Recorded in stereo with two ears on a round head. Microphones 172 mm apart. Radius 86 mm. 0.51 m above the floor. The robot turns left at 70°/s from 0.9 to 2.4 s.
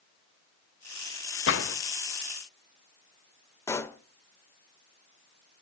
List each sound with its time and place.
1.5 s a gunshot: 70° left (ahead or behind), 0.9 m; by 1.8 s 75° left (ahead or behind), 0.9 m
3.7 s a pop: 15° left (ahead or behind), 0.7 m